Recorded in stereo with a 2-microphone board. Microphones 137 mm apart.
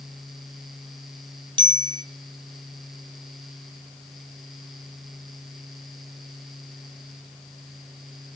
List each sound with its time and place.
1.6 s a bicycle bell: 35° right (ahead or behind), 2 m